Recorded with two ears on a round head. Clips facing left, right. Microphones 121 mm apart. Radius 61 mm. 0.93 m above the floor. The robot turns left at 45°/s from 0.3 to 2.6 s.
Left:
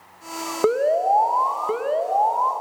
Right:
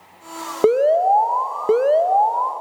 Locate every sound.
0.6 s an alarm: 30° right, 1.0 m; by 2.5 s 115° right, 1.0 m